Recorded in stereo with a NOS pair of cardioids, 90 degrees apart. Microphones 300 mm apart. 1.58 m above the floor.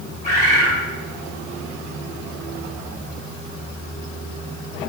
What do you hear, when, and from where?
0.2 s a bird: 25° left, 1.8 m